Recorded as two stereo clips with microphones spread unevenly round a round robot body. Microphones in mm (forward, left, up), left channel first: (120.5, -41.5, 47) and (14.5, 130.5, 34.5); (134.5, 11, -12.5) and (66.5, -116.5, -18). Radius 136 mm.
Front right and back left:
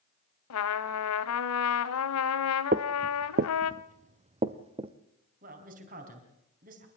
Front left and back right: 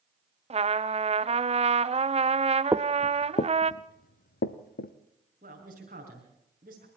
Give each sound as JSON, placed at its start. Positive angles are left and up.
{"t": 0.5, "sound": "a trumpet", "azimuth_deg": -70, "distance_m": 0.9}
{"t": 2.7, "sound": "footsteps", "azimuth_deg": 170, "distance_m": 0.6}
{"t": 5.4, "sound": "a man speaking", "azimuth_deg": 180, "distance_m": 4.0}